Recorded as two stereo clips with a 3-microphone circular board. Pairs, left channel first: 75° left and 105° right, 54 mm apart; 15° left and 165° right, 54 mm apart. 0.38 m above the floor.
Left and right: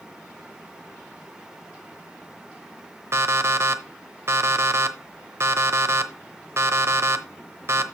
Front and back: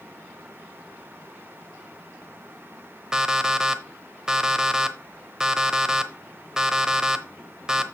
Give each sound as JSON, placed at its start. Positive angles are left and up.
{"t": 3.1, "sound": "an alarm clock", "azimuth_deg": -85, "distance_m": 0.9}